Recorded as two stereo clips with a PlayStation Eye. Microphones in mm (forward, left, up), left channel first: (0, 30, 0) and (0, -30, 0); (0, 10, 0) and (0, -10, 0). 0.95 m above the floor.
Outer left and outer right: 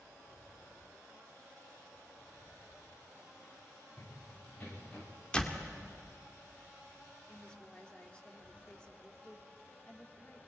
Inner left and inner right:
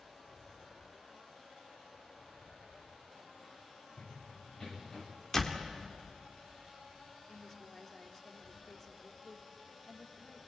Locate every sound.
4.0 s running footsteps: 30° left (ahead or behind), 6.5 m; by 5.1 s 25° left (ahead or behind), 6 m
5.3 s a door slam: 15° left (ahead or behind), 1.9 m
7.3 s a woman speaking: 15° left (ahead or behind), 2 m